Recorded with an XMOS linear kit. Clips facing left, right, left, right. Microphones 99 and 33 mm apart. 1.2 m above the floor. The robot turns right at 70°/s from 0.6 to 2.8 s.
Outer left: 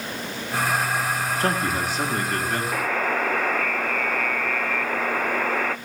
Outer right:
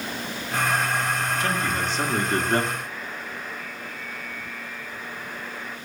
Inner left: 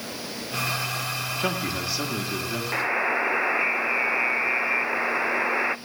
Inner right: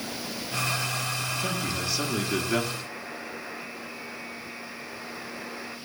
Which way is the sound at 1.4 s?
135° left.